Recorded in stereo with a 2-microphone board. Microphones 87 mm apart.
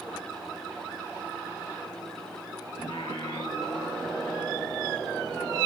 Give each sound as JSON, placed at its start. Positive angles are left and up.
{"t": 2.8, "sound": "singing", "side_deg": 90, "distance_m": 5.5}